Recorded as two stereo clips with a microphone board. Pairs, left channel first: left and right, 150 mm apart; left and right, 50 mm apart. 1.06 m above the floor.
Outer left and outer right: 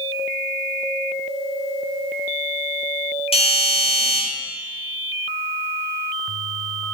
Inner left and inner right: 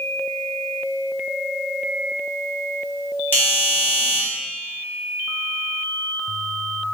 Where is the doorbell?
40° left (ahead or behind), 1.2 m.